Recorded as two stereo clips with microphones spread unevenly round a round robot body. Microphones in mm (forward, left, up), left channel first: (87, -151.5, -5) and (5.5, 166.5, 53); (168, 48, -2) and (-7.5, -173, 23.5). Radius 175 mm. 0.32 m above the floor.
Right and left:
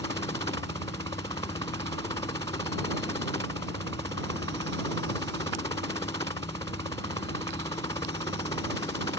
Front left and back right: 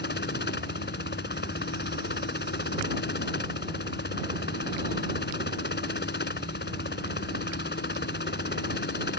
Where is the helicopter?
Straight ahead.